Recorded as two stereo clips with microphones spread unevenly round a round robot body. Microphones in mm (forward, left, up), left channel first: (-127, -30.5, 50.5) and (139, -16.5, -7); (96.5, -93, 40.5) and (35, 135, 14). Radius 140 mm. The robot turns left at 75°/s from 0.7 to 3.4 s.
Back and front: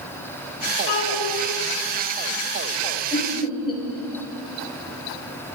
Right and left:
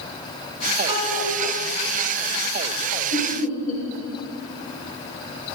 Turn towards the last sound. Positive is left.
turn(degrees=-100)